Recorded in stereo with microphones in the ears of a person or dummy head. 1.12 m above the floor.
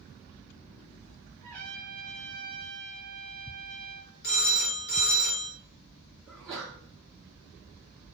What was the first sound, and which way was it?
A trumpet, 5° left (ahead or behind).